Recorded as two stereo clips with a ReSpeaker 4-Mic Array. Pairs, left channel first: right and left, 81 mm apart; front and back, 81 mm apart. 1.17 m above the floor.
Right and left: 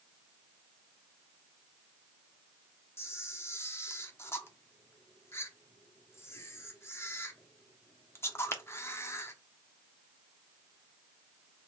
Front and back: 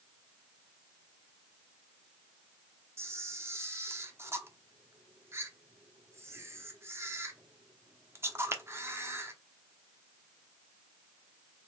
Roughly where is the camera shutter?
Behind right.